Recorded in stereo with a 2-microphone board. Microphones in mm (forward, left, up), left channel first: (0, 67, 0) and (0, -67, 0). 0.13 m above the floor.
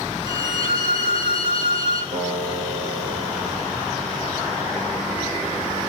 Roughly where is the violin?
Right.